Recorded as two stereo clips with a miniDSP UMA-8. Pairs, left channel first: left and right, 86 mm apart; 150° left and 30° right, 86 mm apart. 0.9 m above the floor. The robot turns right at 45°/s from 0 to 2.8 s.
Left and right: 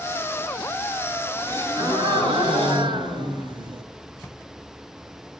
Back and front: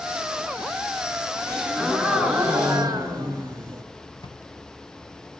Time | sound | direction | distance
1.5 | a gasp | 145° right | 3.5 m
4.2 | a drawer | 175° left | 3 m